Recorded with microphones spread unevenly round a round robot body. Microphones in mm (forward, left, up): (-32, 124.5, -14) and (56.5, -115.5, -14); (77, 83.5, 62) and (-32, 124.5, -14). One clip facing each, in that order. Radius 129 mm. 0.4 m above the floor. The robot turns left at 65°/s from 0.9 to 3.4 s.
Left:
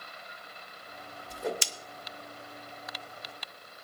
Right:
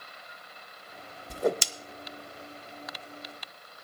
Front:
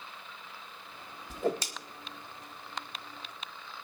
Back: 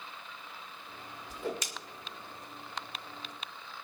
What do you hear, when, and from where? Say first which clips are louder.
1.3 s a whoosh: right 7 dB, front 6 dB; 85° right, 0.6 m; by 1.6 s 105° right, 0.6 m